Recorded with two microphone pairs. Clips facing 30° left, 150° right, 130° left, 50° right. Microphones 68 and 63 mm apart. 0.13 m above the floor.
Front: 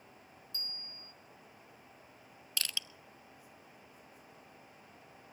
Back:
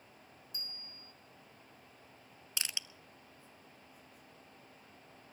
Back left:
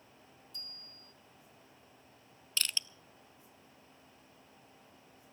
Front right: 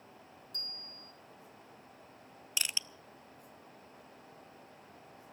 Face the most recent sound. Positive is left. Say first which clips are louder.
# front 2 dB, back left 1 dB
turn(degrees=-100)